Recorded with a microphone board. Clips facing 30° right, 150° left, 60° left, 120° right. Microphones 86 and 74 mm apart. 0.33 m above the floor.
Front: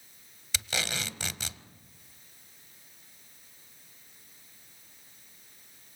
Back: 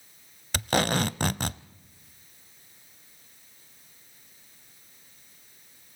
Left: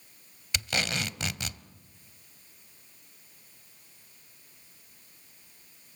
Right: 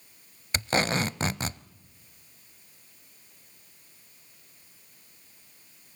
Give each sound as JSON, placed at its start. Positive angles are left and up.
{"t": 0.5, "sound": "tape being pulled", "azimuth_deg": -175, "distance_m": 0.6}